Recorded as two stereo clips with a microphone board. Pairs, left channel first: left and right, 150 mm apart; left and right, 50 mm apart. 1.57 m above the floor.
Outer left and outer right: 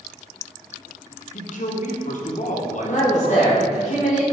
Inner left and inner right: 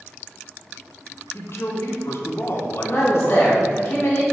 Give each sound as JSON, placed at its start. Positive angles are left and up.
{"t": 1.3, "sound": "a man speaking", "side_deg": 55, "distance_m": 1.0}
{"t": 2.8, "sound": "a man speaking", "side_deg": 50, "distance_m": 1.5}